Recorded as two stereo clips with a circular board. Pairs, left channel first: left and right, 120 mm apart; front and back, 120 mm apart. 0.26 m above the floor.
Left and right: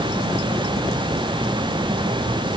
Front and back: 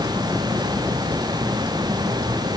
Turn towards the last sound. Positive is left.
No sound to turn to.